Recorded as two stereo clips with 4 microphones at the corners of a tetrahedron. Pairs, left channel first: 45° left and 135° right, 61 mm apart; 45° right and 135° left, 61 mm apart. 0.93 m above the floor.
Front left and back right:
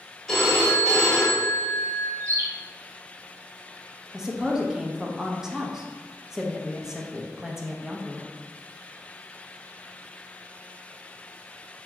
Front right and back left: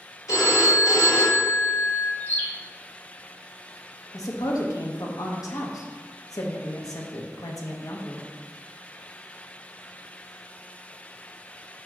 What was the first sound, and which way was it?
A phone ringing, 40° right.